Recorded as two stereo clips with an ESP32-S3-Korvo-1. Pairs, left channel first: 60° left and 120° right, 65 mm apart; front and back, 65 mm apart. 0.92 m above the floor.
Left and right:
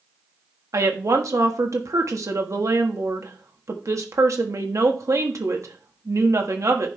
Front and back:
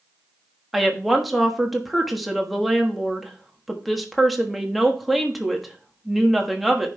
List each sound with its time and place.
0.7 s a woman speaking: 90° right, 1.4 m